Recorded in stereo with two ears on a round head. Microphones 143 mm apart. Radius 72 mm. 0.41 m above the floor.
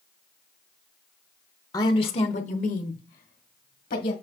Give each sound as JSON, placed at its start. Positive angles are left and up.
{"t": 1.7, "sound": "a woman speaking", "side_deg": 20, "distance_m": 0.9}